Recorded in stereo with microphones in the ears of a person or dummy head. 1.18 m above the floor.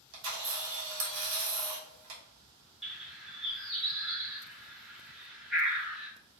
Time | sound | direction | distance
0.1 | a camera shutter | 80° right | 0.9 m
2.8 | a bird | 5° right (ahead or behind) | 0.5 m